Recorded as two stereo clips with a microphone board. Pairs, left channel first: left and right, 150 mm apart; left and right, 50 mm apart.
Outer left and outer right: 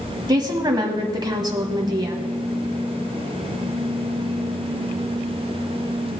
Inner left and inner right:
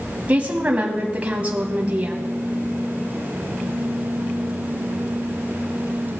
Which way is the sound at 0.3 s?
30° right (ahead or behind).